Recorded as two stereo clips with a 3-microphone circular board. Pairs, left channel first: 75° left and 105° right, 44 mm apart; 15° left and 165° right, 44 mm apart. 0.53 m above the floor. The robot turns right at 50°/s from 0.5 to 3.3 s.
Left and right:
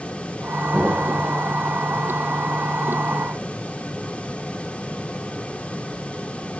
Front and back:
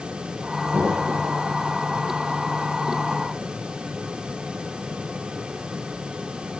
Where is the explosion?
165° right, 1.0 m; by 1.4 s 130° right, 1.0 m.